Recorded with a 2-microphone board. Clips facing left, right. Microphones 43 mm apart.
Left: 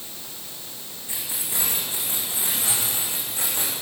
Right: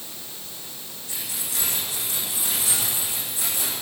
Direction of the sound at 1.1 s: 25° left (ahead or behind).